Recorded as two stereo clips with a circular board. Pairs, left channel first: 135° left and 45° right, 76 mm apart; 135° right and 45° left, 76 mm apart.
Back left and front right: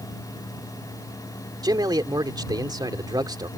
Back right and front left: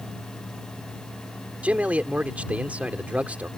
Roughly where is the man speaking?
Ahead right.